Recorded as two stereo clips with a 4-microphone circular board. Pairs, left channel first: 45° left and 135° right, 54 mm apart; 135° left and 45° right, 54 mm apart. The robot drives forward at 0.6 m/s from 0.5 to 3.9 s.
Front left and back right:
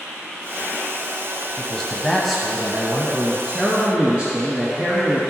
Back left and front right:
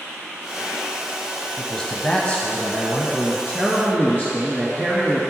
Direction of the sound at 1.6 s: 75° left.